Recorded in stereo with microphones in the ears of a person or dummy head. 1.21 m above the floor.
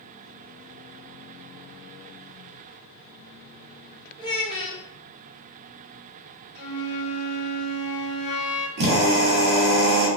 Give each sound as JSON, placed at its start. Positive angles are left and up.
{"t": 4.2, "sound": "a child speaking", "side_deg": 30, "distance_m": 1.5}
{"t": 6.5, "sound": "a flute", "side_deg": 60, "distance_m": 1.3}
{"t": 8.8, "sound": "a drill", "side_deg": -65, "distance_m": 1.0}